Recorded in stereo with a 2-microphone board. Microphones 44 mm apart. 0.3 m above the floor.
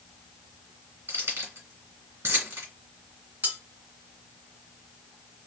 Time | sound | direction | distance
1.1 | keys jangling | 75° right (ahead or behind) | 2.5 m
3.4 | cutlery clinking | 50° right (ahead or behind) | 1.9 m